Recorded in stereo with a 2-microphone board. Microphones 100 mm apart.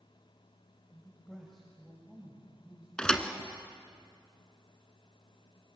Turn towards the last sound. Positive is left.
turn(degrees=10)  # may be behind; listen again after turning